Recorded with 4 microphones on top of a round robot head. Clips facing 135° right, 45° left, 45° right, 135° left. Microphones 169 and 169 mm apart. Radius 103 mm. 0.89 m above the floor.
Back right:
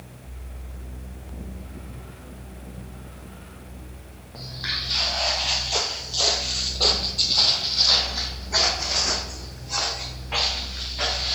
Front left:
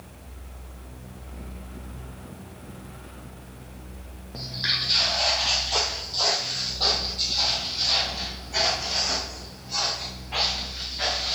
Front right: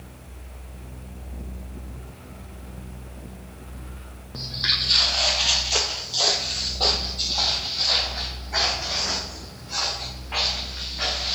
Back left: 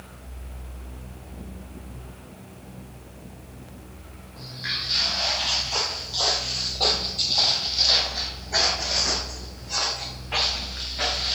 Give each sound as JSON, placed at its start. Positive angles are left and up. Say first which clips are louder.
{"t": 4.3, "sound": "footsteps", "louder": "front left 2 dB, front right 4 dB", "azimuth_deg": -20, "distance_m": 1.4}